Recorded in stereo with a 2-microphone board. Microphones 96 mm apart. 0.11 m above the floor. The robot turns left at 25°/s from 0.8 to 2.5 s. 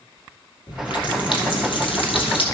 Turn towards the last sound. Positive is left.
turn(degrees=80)